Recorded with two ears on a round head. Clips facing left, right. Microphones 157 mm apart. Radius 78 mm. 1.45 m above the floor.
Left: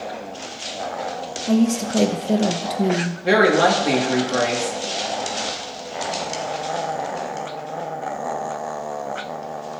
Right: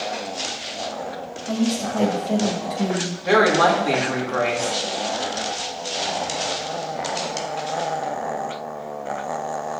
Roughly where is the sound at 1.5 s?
Left.